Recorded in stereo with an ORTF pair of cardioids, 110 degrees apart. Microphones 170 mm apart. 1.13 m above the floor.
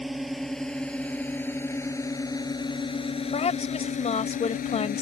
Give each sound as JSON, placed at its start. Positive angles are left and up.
{"t": 0.0, "sound": "a drone", "azimuth_deg": 0}
{"t": 3.3, "sound": "a woman speaking", "azimuth_deg": 40}